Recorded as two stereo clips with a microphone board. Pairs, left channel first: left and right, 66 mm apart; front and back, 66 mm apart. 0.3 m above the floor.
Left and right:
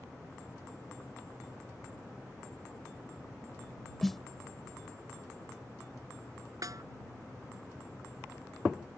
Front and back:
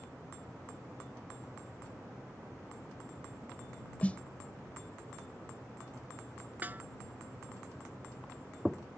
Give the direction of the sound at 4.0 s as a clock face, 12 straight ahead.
12 o'clock.